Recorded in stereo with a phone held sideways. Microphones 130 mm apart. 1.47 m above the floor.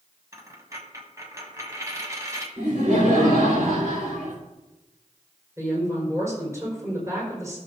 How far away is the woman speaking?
About 5 m.